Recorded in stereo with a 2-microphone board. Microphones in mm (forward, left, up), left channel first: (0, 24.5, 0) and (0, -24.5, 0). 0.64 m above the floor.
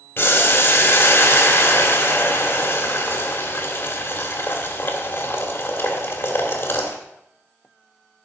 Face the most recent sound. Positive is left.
turn(degrees=55)  # may be behind; listen again after turning